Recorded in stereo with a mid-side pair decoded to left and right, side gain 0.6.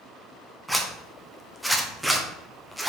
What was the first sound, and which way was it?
A zipper, 5° right.